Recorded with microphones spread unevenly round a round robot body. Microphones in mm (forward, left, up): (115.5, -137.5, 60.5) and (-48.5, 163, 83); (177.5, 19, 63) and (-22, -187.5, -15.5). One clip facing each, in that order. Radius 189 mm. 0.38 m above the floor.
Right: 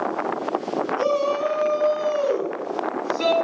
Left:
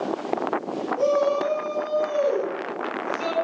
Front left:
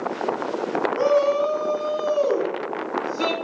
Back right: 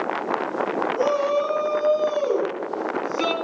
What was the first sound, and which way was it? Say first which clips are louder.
A shout: left 3 dB, front left 3 dB; 5° right.